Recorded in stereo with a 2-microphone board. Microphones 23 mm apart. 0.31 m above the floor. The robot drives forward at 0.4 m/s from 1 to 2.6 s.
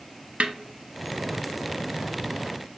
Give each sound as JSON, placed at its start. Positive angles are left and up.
{"t": 0.4, "sound": "a snare drum", "side_deg": -65, "distance_m": 0.5}